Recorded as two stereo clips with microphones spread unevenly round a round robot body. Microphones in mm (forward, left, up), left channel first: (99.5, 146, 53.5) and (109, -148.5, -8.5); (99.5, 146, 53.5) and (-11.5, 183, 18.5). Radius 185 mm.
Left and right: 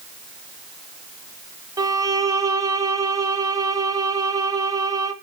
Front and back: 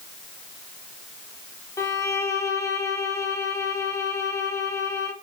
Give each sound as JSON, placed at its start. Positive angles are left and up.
{"t": 1.8, "sound": "a violin", "azimuth_deg": -95, "distance_m": 1.0}